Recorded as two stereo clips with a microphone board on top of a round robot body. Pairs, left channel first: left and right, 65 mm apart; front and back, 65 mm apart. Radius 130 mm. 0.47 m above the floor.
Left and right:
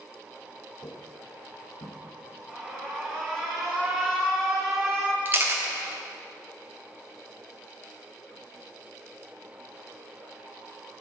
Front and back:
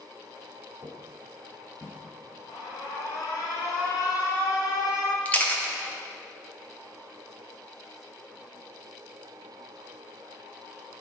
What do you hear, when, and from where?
0.8 s footsteps: 125° left, 0.6 m; by 2.0 s 105° left, 1.2 m
2.5 s an alarm: straight ahead, 2.5 m
5.2 s a camera shutter: 55° right, 1.4 m